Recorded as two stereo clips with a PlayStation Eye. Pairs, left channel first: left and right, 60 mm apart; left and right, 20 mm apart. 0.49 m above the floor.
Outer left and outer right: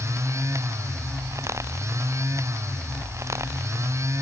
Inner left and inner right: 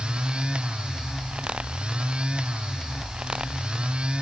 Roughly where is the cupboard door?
No cupboard door in this recording.